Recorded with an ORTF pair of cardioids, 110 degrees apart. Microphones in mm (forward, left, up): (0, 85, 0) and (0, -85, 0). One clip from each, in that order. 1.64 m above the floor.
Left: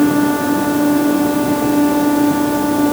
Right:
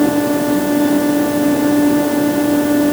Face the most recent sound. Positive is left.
No sound to turn to.